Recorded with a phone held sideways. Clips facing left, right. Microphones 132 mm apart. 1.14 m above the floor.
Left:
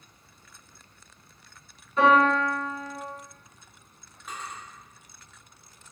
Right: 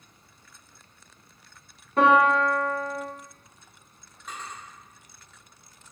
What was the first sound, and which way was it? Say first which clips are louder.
A piano: right 1 dB; 55° right (ahead or behind).